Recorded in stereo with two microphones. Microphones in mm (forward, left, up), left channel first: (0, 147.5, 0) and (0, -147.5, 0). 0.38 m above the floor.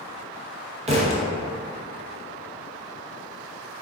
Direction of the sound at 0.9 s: 25° right (ahead or behind).